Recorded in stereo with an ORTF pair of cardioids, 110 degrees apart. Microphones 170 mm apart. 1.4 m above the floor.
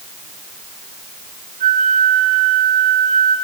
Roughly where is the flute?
Ahead right.